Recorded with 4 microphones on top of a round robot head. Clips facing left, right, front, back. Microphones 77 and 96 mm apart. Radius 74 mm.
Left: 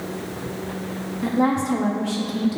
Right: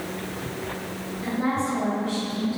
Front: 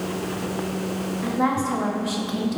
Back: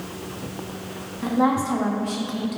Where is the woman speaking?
115° left, 1.7 m; by 2.6 s 60° left, 1.3 m.